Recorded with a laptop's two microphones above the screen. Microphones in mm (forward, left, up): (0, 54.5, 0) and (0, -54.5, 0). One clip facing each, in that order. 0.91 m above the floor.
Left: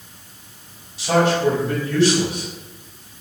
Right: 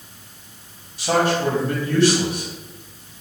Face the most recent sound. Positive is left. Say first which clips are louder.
# left 2 dB
turn(degrees=-45)  # may be behind; listen again after turning